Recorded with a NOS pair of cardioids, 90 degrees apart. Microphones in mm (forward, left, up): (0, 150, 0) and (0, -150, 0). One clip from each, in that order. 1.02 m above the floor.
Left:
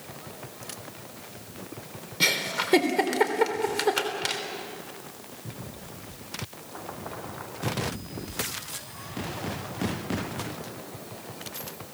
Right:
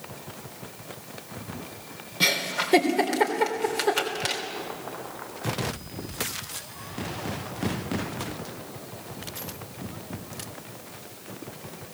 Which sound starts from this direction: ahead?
A giggle, at 2.2 s.